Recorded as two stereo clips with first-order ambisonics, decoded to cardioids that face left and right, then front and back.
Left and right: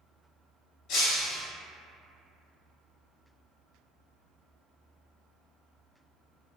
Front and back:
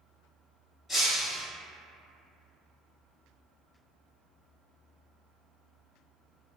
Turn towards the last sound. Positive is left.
turn(degrees=70)